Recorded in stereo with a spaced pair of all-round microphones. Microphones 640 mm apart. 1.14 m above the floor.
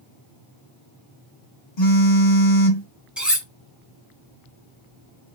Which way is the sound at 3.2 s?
Centre (ahead or behind).